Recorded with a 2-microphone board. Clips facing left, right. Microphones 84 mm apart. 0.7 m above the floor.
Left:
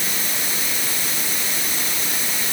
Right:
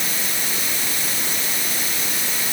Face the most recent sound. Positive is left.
No sound to turn to.